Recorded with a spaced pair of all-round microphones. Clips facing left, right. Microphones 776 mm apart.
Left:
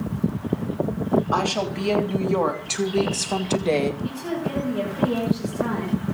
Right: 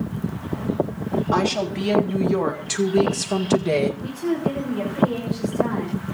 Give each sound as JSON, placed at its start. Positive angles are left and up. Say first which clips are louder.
{"t": 1.3, "sound": "a woman speaking", "louder": "right 3 dB", "side_deg": -50, "distance_m": 3.5}
{"t": 4.0, "sound": "a woman speaking", "louder": "right 4 dB", "side_deg": -25, "distance_m": 9.5}